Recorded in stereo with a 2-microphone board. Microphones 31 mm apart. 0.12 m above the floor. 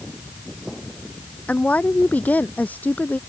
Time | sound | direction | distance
1.5 | a woman speaking | 50° left (ahead or behind) | ?